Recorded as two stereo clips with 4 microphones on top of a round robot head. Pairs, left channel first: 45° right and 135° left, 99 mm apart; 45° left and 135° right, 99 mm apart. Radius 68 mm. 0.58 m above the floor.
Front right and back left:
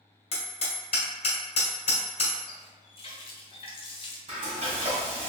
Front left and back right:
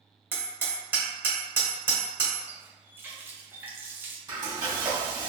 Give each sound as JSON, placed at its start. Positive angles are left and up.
{"t": 0.3, "sound": "hammering", "azimuth_deg": -65, "distance_m": 1.4}
{"t": 2.5, "sound": "a running tap", "azimuth_deg": -65, "distance_m": 0.7}
{"t": 4.3, "sound": "frying", "azimuth_deg": 170, "distance_m": 1.9}